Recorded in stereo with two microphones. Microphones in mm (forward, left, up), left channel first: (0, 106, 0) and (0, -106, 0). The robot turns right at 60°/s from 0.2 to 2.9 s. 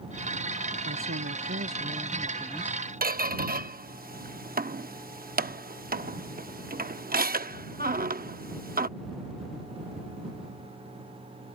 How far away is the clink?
No clink in this recording.